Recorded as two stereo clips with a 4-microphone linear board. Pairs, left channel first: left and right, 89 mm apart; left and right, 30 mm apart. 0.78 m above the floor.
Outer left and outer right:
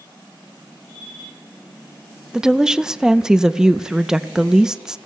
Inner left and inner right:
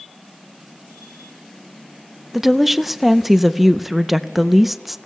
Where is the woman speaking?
5° right (ahead or behind), 0.5 m.